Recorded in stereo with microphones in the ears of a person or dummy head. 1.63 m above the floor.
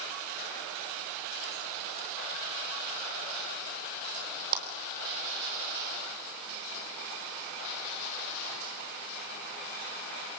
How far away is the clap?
About 4 m.